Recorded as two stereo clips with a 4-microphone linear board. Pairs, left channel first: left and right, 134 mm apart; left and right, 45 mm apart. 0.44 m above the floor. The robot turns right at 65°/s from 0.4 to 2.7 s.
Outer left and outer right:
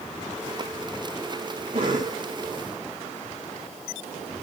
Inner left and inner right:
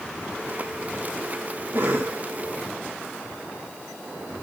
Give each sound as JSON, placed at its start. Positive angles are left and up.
{"t": 1.7, "sound": "a cough", "side_deg": -70, "distance_m": 3.5}